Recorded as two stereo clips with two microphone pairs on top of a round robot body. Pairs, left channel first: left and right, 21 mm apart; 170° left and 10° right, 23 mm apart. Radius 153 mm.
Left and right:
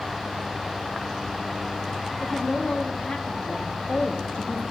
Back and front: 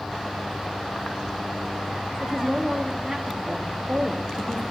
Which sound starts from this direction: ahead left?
A woman speaking, at 2.2 s.